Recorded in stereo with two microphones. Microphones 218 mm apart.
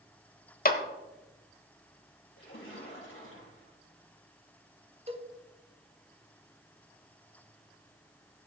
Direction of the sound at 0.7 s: 45° left (ahead or behind).